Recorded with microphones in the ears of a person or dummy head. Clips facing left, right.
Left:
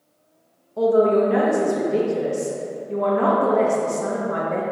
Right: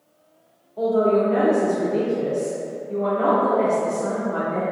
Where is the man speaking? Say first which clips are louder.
Left 2 dB; 70° left (ahead or behind), 0.8 m.